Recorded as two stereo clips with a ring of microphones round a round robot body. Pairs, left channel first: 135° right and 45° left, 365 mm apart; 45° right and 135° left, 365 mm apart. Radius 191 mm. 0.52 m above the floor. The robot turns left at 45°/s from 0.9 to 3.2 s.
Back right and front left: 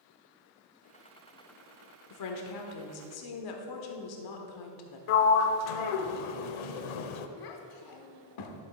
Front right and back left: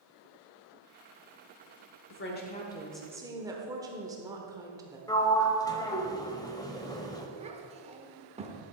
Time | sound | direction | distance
2.1 | a woman speaking | 95° right | 1.4 m
5.1 | a sliding door | 125° right | 0.8 m
7.4 | a child speaking | 155° right | 1.3 m